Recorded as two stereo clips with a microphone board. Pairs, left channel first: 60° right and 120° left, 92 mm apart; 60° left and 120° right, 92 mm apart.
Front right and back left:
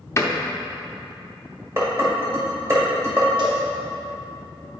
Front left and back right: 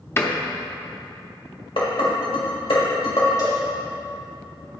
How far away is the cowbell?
About 1.6 m.